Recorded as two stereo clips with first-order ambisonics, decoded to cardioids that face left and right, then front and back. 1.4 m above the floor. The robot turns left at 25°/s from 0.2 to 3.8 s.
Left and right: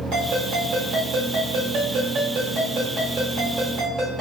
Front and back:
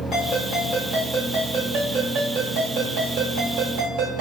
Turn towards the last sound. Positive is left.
turn(degrees=-155)